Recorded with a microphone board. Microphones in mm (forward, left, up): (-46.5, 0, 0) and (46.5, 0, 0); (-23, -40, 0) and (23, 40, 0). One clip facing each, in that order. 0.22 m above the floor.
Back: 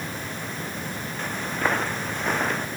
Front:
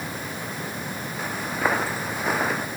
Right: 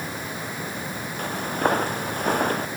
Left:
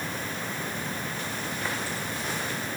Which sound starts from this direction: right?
Footsteps, at 1.2 s.